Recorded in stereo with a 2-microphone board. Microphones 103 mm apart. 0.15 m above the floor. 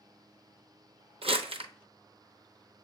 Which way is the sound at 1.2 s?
75° right (ahead or behind).